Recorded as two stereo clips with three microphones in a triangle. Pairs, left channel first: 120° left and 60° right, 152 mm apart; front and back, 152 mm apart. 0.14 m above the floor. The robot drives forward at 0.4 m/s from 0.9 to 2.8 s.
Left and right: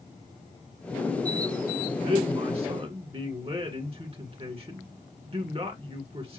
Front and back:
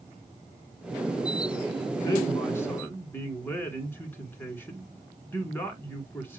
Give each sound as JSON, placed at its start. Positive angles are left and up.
{"t": 2.0, "sound": "a man speaking", "azimuth_deg": -55, "distance_m": 1.9}